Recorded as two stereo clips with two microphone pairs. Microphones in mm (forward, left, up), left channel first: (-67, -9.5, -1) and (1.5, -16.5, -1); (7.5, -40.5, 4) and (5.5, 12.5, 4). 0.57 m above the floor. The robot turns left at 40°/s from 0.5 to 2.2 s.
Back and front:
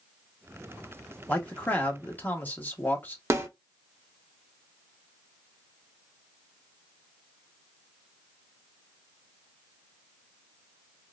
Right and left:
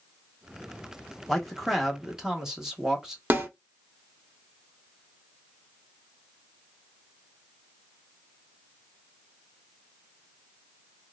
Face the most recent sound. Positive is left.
turn(degrees=40)